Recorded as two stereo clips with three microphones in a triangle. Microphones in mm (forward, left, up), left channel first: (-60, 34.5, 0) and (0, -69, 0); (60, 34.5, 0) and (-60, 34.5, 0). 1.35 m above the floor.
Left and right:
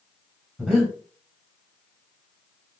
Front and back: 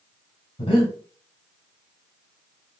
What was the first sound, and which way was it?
Breathing, 35° left.